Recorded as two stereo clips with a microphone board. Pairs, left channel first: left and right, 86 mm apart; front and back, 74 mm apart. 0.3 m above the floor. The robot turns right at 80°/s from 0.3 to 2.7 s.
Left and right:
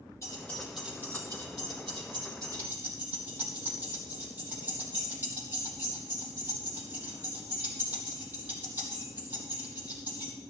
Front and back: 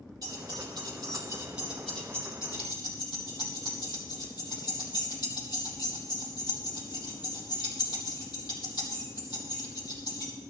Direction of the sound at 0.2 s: 145° left.